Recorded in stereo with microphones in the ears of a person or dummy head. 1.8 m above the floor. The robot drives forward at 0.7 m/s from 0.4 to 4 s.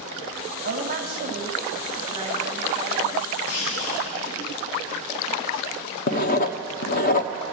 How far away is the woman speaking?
About 1.9 m.